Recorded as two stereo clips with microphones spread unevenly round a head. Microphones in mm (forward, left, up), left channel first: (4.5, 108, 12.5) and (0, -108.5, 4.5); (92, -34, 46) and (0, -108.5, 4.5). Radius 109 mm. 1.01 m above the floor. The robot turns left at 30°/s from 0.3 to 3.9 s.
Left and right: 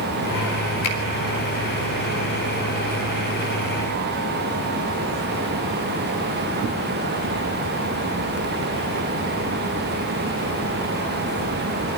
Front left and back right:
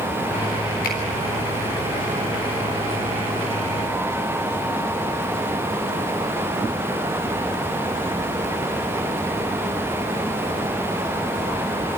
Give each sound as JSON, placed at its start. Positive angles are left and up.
{"t": 0.8, "sound": "a finger snap", "azimuth_deg": 75, "distance_m": 4.0}